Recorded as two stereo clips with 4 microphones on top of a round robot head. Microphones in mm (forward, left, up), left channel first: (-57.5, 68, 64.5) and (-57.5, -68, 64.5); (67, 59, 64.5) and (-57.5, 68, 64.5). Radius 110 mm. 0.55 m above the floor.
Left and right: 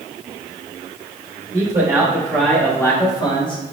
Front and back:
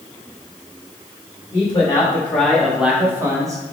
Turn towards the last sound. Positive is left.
turn(degrees=125)